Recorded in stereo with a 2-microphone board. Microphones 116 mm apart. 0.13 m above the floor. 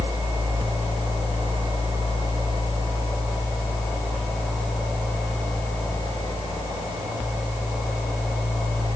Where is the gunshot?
No gunshot in this recording.